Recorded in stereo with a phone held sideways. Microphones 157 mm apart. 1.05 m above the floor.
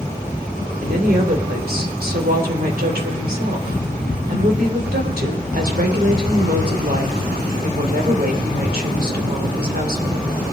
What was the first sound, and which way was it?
A woman speaking, 70° right (ahead or behind).